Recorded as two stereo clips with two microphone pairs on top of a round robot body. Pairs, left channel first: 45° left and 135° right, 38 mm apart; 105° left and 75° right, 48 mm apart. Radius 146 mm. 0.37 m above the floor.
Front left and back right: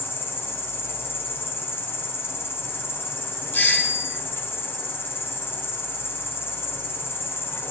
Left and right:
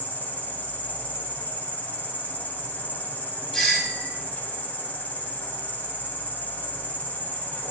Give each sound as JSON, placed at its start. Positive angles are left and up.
{"t": 0.0, "sound": "an insect", "azimuth_deg": 45, "distance_m": 2.0}
{"t": 3.5, "sound": "a doorbell", "azimuth_deg": 25, "distance_m": 4.0}